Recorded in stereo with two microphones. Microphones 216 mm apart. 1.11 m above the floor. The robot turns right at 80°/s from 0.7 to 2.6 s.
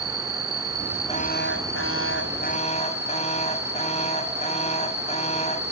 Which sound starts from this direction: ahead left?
An alarm, at 1.1 s.